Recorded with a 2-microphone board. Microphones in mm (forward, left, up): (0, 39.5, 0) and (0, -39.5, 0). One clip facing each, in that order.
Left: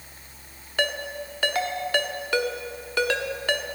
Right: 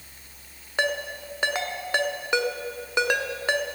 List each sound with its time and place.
0.8 s a ringtone: 20° right (ahead or behind), 1.0 m